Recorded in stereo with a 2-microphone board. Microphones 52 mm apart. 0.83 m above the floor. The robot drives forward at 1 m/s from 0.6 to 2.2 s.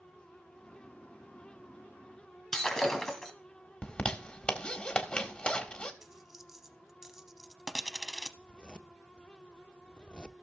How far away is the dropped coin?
About 0.8 m.